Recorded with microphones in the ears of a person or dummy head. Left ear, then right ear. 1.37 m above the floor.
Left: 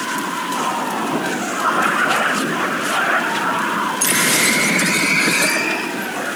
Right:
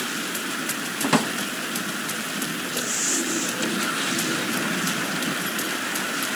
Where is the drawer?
55° right (ahead or behind), 0.8 m.